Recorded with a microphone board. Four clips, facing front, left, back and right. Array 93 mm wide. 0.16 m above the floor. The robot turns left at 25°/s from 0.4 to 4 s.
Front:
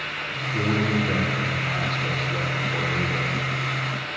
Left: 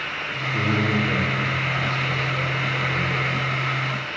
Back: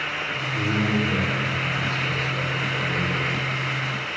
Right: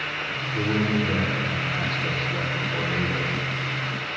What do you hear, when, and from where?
0.5 s a man speaking: 50° left, 5 m; by 3.4 s 20° right, 5 m